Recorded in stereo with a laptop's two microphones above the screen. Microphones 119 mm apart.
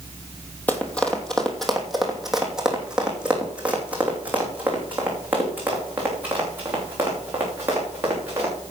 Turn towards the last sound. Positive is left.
turn(degrees=-20)  # may be behind; listen again after turning